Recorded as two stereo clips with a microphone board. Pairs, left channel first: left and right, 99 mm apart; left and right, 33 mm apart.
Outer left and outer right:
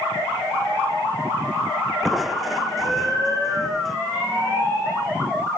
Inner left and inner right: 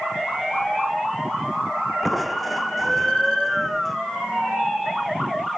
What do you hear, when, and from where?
2.0 s crushing: centre (ahead or behind)